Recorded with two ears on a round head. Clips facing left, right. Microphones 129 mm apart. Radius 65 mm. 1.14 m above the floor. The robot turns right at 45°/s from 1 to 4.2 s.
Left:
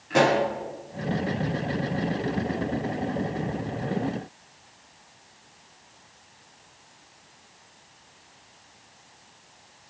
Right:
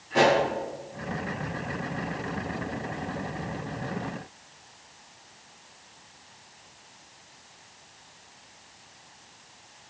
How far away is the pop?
About 7.5 m.